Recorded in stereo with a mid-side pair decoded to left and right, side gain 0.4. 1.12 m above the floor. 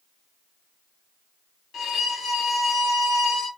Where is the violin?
70° left, 1.8 m.